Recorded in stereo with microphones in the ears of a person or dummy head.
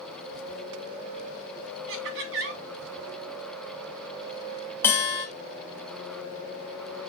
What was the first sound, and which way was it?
Laughter, 80° right.